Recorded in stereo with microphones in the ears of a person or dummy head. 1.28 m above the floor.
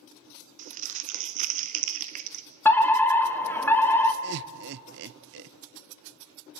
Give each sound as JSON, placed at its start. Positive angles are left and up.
{"t": 0.6, "sound": "crumpling", "side_deg": -40, "distance_m": 1.2}
{"t": 2.6, "sound": "a fire alarm", "side_deg": 10, "distance_m": 1.6}
{"t": 4.2, "sound": "laughter", "side_deg": -60, "distance_m": 0.7}